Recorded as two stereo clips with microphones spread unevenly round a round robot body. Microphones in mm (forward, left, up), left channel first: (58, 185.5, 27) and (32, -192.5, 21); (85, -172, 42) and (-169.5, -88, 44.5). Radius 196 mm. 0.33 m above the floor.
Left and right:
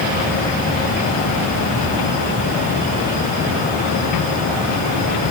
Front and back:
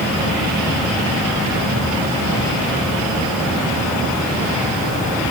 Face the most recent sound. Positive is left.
No sound to turn to.